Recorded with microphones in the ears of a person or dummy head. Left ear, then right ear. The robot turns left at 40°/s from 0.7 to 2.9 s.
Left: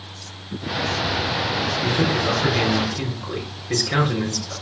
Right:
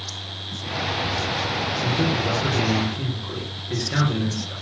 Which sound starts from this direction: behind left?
A man speaking, at 1.8 s.